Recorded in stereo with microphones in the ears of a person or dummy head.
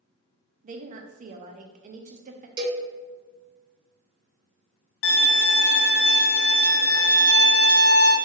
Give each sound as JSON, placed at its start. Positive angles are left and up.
{"t": 0.6, "sound": "a woman speaking", "side_deg": -40, "distance_m": 0.5}
{"t": 2.6, "sound": "a cowbell", "side_deg": -25, "distance_m": 1.3}
{"t": 5.0, "sound": "a violin", "side_deg": 65, "distance_m": 0.9}